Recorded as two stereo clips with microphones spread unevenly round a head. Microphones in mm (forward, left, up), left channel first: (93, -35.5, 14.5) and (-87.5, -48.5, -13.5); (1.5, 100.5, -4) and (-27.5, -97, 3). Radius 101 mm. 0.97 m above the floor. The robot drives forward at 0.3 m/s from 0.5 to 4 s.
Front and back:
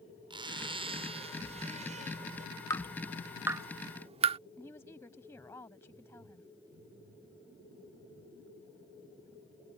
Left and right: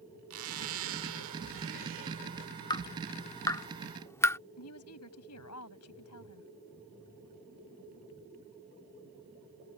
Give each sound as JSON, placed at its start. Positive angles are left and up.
{"t": 0.3, "sound": "a zipper", "azimuth_deg": -110}
{"t": 2.7, "sound": "dripping", "azimuth_deg": 30}
{"t": 4.6, "sound": "a woman speaking", "azimuth_deg": 80}